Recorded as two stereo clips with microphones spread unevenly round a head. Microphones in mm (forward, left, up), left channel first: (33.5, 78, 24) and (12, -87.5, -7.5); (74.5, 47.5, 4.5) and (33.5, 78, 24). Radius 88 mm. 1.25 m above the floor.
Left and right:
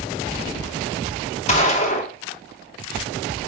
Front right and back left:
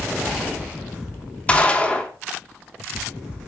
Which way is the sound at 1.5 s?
30° left.